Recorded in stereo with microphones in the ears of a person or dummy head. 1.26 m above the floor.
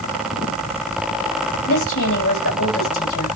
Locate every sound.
1.7 s a woman speaking: 85° left, 6 m